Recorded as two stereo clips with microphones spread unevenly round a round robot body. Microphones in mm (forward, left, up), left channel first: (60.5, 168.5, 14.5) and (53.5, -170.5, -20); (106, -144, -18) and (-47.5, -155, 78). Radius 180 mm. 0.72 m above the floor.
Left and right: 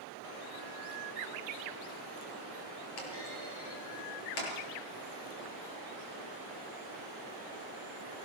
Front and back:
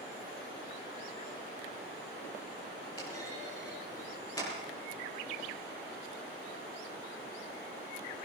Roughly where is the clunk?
Left.